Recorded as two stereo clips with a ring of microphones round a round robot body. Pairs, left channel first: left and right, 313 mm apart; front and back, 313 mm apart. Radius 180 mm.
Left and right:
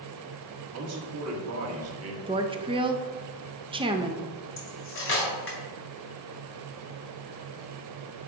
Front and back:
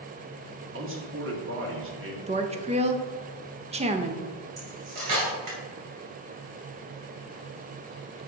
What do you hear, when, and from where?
0.7 s a man speaking: 130° right, 1.5 m
2.3 s a woman speaking: 140° right, 0.6 m
4.6 s cutlery clinking: 140° left, 2.5 m